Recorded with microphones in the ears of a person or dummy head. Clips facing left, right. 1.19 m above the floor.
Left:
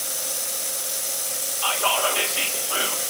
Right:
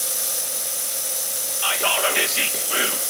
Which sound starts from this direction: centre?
Whispering, at 1.6 s.